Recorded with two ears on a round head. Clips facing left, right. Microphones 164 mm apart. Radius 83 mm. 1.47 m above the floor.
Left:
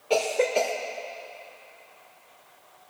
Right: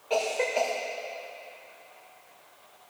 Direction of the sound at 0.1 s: 45° left (ahead or behind).